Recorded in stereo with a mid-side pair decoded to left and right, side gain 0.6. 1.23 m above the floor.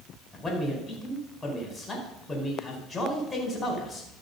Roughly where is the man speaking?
Ahead.